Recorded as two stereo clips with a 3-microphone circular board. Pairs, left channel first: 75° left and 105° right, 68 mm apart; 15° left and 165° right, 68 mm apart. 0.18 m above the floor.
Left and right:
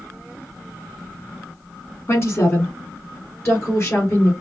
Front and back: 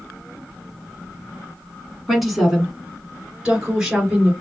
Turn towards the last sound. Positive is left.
turn(degrees=120)